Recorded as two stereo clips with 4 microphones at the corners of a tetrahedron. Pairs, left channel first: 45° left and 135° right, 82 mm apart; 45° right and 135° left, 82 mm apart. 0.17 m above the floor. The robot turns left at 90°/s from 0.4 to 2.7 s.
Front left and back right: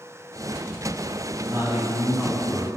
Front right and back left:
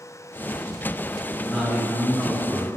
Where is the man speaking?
130° right, 1.3 m; by 2.7 s 120° left, 1.3 m.